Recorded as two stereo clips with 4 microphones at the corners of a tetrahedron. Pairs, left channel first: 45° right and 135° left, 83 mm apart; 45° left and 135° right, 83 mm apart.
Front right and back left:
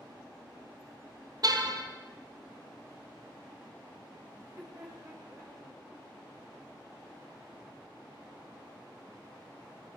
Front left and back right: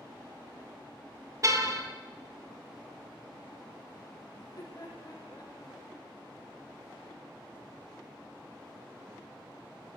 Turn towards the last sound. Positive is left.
turn(degrees=85)